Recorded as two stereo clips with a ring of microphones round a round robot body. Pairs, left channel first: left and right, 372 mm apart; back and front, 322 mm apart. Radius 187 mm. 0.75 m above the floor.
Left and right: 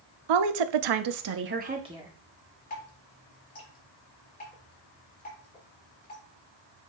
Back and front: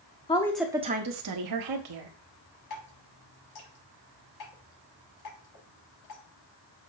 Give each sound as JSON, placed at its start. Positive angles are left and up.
{"t": 0.3, "sound": "a woman speaking", "azimuth_deg": -105, "distance_m": 1.1}
{"t": 2.7, "sound": "dripping", "azimuth_deg": 160, "distance_m": 5.5}